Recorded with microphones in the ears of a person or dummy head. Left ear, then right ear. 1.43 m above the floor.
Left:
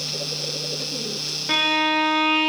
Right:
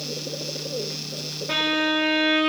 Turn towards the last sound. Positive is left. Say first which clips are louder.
# left 3 dB
turn(degrees=25)  # may be behind; listen again after turning